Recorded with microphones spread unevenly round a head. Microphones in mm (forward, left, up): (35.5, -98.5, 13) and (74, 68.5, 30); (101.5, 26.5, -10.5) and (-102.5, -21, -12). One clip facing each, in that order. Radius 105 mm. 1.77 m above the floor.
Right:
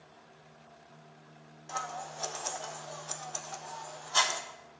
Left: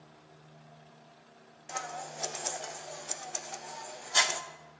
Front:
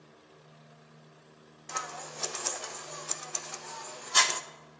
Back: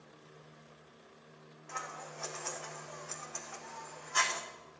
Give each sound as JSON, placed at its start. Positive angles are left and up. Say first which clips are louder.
{"t": 1.7, "sound": "scissors", "louder": "even, front 4 dB", "azimuth_deg": 10, "distance_m": 0.5}